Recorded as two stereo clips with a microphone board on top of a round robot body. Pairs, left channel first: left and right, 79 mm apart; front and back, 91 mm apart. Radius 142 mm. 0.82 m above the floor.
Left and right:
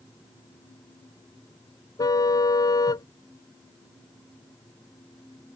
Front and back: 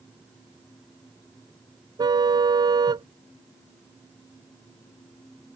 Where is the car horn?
135° left.